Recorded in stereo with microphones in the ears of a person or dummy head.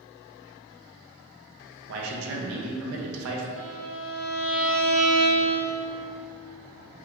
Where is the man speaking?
75° right (ahead or behind), 0.8 m.